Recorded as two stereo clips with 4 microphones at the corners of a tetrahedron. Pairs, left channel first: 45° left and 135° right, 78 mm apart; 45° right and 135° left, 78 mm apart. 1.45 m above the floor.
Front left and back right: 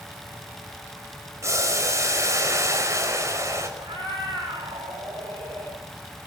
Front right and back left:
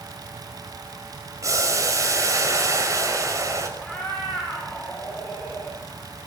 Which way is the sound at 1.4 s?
175° left.